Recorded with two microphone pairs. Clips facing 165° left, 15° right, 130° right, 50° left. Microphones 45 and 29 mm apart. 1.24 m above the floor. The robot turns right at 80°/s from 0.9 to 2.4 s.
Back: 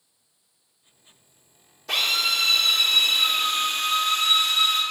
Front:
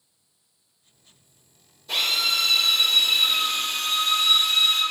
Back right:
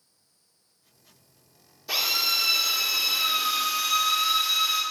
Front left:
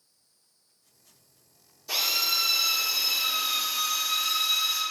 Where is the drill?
165° left, 2 m; by 4.8 s 155° right, 2 m.